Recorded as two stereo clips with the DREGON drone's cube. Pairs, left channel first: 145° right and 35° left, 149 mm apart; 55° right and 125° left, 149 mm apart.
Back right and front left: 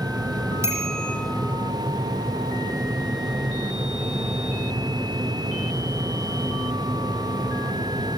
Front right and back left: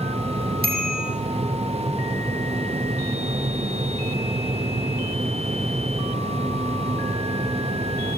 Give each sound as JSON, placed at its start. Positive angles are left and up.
{"t": 0.6, "sound": "a bicycle bell", "azimuth_deg": 110, "distance_m": 7.0}